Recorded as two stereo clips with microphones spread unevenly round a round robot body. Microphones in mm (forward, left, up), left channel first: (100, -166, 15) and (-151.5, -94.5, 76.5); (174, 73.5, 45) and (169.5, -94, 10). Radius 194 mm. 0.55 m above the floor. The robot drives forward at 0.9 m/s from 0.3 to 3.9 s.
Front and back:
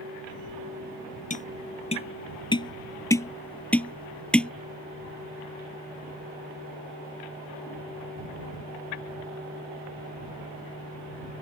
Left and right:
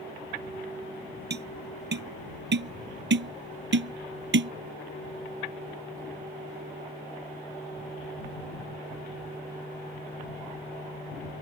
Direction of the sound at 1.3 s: 80° right.